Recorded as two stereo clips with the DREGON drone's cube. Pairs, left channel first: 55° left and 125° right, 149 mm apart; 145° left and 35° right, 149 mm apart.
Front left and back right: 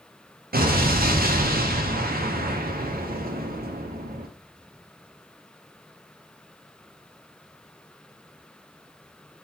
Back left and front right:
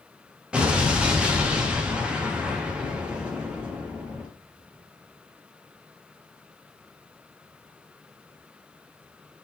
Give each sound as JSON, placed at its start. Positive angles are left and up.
{"t": 0.5, "sound": "an explosion", "azimuth_deg": -115, "distance_m": 0.5}